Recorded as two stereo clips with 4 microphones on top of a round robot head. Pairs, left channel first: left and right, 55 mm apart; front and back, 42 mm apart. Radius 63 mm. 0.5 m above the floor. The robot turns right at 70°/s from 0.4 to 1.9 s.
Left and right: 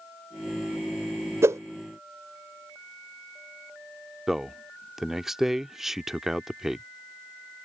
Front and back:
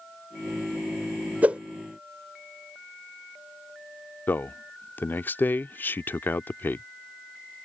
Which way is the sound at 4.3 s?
10° right.